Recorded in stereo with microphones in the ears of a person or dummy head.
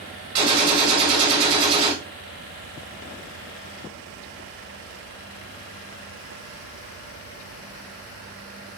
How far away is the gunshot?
About 1.5 m.